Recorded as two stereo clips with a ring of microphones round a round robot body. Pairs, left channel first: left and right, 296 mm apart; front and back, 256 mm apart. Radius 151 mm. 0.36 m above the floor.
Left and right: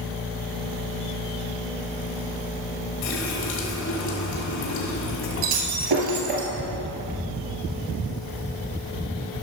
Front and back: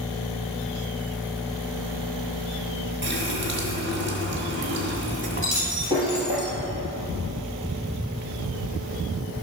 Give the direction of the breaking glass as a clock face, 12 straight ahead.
3 o'clock.